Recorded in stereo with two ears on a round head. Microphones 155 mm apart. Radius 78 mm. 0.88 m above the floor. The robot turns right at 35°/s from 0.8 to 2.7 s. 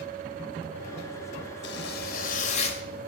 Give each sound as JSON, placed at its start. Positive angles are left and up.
{"t": 1.6, "sound": "a zipper", "azimuth_deg": 105, "distance_m": 2.0}